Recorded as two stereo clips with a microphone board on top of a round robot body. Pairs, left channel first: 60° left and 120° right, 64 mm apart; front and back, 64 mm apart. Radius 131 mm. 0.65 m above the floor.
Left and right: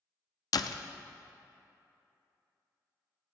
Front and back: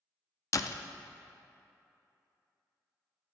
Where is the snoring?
I don't hear snoring.